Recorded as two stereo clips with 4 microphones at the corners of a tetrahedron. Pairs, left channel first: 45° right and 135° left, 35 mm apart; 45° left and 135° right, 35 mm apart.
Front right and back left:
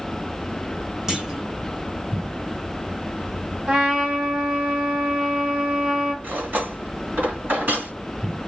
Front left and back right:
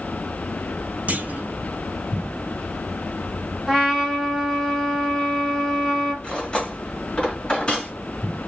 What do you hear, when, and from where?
1.1 s a clunk: 155° right, 0.8 m
3.7 s a trumpet: 135° left, 1.4 m
6.2 s cutlery clinking: 110° left, 1.8 m